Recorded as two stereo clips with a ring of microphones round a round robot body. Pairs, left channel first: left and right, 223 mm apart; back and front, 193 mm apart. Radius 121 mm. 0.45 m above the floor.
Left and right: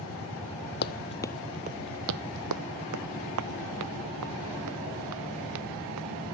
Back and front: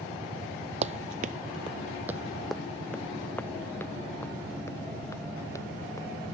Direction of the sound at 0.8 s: 50° left.